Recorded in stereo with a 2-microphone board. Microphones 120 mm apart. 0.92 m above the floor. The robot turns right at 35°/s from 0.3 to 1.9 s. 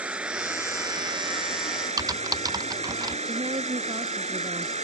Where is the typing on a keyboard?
30° right (ahead or behind).